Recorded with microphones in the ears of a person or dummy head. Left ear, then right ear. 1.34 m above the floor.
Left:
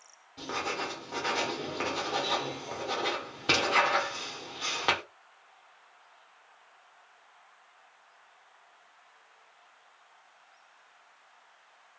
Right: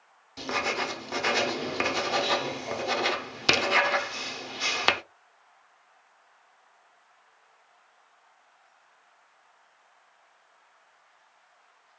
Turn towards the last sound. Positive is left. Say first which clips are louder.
# right 5 dB
turn(degrees=-75)  # may be behind; listen again after turning